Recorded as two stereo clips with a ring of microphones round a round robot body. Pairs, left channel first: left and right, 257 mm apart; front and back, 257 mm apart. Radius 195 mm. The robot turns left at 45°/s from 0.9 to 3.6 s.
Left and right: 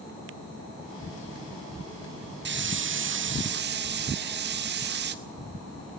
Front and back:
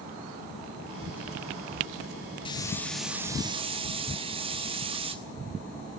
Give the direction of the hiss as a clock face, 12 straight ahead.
2 o'clock.